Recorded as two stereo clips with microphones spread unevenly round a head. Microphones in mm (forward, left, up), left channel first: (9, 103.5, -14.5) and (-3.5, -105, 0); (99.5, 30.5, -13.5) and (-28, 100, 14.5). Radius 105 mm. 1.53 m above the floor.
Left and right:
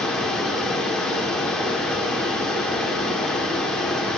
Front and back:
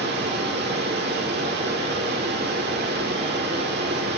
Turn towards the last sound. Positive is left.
turn(degrees=175)